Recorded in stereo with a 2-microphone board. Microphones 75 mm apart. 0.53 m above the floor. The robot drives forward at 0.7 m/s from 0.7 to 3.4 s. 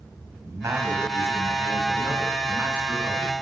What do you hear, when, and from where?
0.4 s a man speaking: 40° right (ahead or behind), 2.5 m; by 3.3 s 25° right (ahead or behind), 4 m